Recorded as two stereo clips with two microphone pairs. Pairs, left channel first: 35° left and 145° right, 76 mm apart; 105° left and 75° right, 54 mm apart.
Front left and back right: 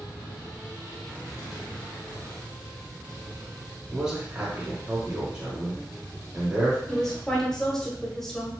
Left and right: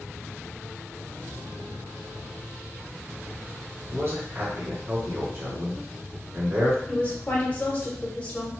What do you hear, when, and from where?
3.9 s a man speaking: 65° right, 1.4 m
6.9 s a woman speaking: 105° left, 1.0 m